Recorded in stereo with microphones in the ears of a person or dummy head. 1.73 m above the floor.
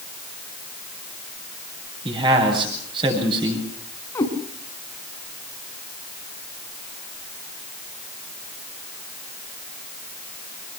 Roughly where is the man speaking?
Right.